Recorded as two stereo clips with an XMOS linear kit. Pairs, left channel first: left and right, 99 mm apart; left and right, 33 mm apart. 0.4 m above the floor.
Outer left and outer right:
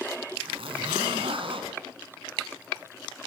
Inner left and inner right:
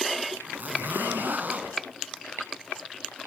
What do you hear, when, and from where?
0.4 s a zipper: 75° right (ahead or behind), 3 m